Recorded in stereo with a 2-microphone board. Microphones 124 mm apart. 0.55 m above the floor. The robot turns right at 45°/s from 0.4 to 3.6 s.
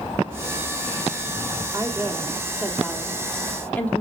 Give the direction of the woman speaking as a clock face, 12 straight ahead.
2 o'clock.